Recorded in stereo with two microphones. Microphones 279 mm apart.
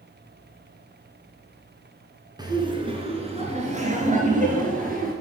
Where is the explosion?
No explosion in this recording.